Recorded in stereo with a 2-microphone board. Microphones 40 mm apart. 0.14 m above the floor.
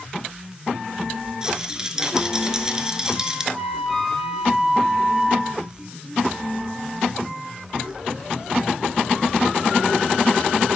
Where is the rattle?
15° right (ahead or behind), 0.7 m.